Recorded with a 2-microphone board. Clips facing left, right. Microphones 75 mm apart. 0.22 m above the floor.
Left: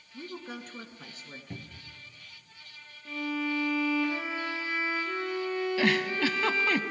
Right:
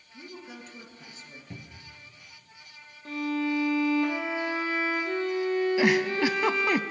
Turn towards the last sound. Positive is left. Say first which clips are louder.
# right 1 dB
turn(degrees=-15)  # may be behind; listen again after turning